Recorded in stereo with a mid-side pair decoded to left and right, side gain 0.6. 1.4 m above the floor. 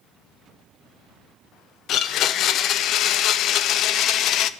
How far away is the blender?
About 0.7 m.